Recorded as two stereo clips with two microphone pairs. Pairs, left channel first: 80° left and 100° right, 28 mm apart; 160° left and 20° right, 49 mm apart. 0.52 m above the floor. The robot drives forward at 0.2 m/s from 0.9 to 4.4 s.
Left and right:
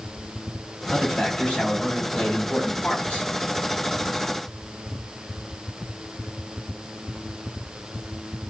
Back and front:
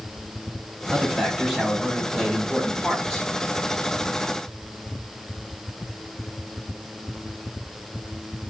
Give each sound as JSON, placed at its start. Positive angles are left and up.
{"t": 0.9, "sound": "a man speaking", "azimuth_deg": 60, "distance_m": 1.3}